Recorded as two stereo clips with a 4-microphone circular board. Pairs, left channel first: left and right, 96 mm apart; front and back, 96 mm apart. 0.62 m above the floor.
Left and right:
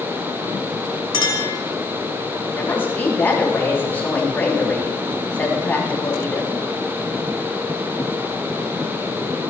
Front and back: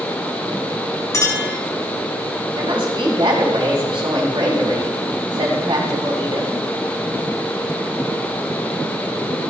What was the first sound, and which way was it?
A clink, 55° left.